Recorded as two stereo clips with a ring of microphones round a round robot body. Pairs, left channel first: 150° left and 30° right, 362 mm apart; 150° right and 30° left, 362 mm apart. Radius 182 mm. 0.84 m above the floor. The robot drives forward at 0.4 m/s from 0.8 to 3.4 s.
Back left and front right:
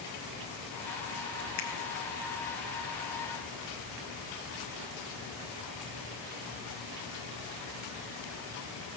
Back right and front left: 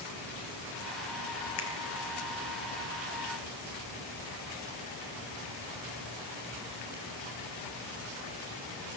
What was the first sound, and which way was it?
A finger snap, 165° right.